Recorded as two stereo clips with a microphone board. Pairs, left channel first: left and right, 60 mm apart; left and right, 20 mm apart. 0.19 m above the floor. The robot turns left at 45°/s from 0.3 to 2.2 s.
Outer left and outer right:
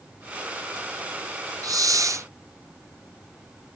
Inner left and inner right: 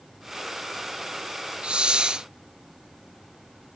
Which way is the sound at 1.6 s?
85° right.